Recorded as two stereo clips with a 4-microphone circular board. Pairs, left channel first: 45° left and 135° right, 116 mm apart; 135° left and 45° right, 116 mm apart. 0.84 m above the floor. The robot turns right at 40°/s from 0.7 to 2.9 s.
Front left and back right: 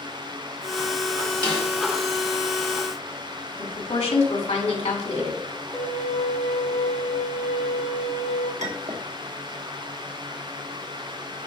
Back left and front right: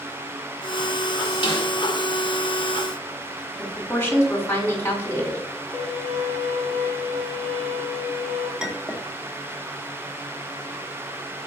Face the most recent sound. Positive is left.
turn(degrees=-130)